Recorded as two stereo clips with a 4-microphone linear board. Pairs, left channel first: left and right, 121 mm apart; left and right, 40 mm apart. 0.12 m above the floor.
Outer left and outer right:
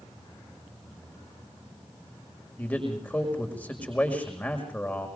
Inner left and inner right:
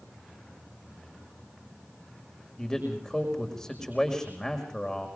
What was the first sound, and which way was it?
A man speaking, 15° left (ahead or behind).